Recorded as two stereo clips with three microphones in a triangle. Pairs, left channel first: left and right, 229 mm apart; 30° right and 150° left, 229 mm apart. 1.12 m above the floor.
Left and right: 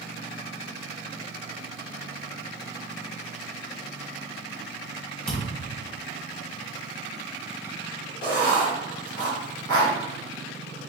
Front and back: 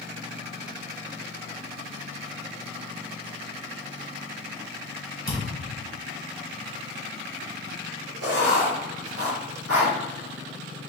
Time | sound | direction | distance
5.3 | a thud | 175° left | 1.8 m
8.2 | writing | 160° left | 1.6 m